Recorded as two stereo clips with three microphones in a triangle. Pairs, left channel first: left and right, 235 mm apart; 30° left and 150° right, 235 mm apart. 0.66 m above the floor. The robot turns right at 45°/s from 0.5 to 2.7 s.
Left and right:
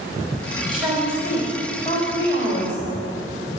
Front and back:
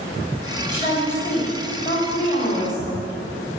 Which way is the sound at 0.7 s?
5° right.